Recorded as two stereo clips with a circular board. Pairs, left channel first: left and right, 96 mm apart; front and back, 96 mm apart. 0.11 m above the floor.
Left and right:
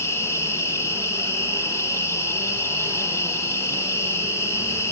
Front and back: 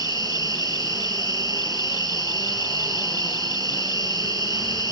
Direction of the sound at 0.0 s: 145° left.